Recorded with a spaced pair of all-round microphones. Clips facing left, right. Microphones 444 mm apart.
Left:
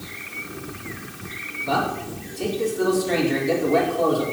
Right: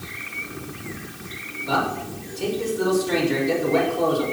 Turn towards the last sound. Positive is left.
turn(degrees=75)  # may be behind; listen again after turning